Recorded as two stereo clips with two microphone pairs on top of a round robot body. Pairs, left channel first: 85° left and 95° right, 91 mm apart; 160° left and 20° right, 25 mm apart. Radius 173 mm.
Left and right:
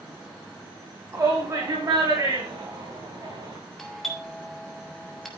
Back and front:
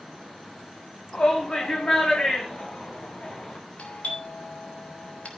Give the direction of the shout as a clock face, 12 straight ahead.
5 o'clock.